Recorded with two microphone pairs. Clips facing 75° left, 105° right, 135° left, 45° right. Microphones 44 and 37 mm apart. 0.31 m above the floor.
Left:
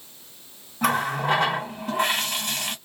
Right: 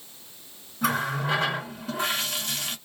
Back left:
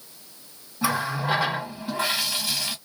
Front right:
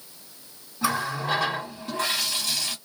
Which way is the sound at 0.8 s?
60° left.